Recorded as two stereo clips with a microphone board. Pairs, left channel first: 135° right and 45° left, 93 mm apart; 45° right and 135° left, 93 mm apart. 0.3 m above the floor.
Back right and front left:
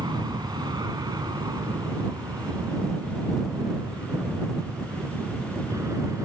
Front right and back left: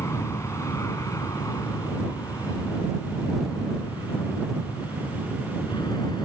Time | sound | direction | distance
0.0 | an aircraft | 10° left | ?